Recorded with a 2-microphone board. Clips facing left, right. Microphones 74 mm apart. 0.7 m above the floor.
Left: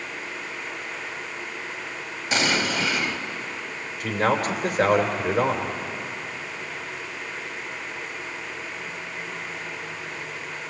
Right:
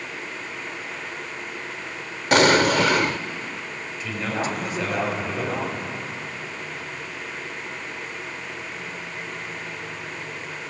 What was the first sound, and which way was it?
An explosion, 55° right (ahead or behind).